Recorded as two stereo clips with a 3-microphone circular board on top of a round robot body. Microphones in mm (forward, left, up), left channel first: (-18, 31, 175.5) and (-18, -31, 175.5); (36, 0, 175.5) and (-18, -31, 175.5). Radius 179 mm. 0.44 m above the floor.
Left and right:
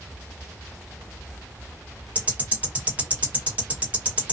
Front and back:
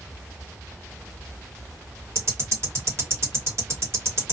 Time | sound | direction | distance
2.1 | ticking | 145° right | 1.4 m